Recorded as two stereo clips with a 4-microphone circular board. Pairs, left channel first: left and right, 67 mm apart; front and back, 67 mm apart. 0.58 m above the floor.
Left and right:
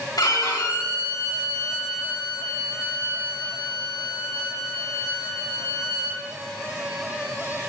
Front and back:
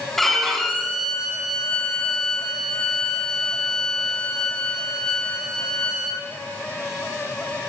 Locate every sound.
0.2 s a violin: 85° left, 2.5 m